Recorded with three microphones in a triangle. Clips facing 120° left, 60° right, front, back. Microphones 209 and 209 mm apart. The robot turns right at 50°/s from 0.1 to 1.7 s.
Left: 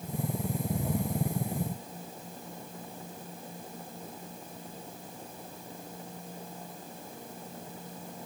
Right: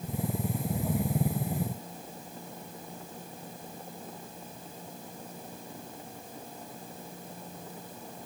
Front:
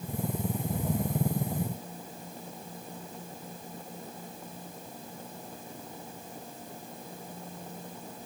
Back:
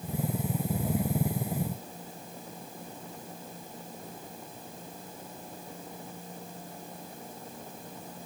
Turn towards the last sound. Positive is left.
No sound to turn to.